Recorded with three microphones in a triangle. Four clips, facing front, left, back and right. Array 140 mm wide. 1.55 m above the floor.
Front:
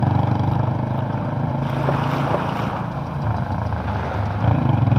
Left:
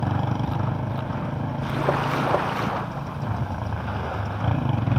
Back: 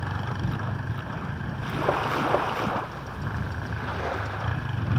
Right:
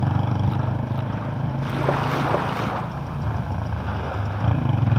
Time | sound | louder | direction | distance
0.0 | a motorcycle | right 1 dB, front 11 dB | straight ahead | ?